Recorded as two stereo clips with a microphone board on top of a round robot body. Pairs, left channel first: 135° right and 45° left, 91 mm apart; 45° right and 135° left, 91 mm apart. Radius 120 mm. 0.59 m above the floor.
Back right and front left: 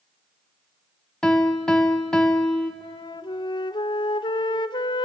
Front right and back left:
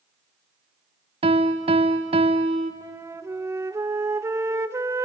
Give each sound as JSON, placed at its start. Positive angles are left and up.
{"t": 1.2, "sound": "a piano", "azimuth_deg": 145, "distance_m": 0.8}
{"t": 2.8, "sound": "a flute", "azimuth_deg": -165, "distance_m": 1.0}